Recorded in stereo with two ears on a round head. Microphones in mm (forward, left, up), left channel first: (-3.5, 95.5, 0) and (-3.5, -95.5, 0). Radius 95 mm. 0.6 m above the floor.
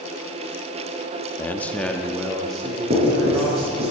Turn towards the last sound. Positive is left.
turn(degrees=-30)  # may be behind; listen again after turning